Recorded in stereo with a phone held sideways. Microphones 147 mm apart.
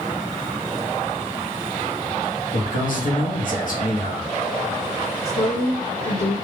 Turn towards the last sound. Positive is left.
turn(degrees=55)  # may be behind; listen again after turning